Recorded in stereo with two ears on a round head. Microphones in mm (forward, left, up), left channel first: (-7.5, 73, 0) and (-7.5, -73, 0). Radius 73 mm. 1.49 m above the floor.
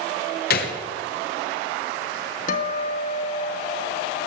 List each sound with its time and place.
0.5 s a gunshot: 65° left (ahead or behind), 1.5 m
2.5 s a guitar: 55° left (ahead or behind), 1.6 m